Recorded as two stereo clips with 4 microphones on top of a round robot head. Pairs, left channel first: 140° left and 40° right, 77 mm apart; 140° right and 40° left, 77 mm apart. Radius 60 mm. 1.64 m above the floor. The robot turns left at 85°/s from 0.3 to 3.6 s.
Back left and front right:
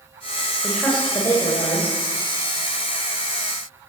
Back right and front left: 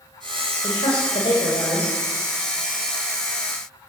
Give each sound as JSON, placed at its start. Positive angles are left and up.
{"t": 0.6, "sound": "a woman speaking", "azimuth_deg": -115, "distance_m": 6.5}